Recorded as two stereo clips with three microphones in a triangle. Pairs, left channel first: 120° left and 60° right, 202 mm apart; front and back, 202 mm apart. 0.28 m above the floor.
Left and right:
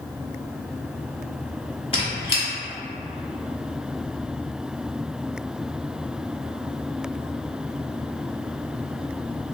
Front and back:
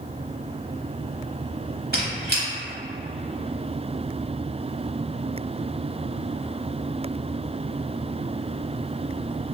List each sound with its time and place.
1.9 s a squeak: 175° left, 0.8 m